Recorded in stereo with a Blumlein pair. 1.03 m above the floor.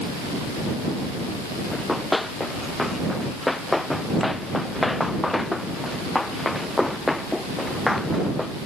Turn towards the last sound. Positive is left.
turn(degrees=5)